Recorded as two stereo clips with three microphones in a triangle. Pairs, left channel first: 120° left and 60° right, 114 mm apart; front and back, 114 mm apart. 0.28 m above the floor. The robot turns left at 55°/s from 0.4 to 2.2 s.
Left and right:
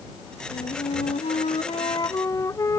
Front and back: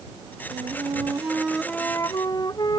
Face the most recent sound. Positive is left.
turn(degrees=55)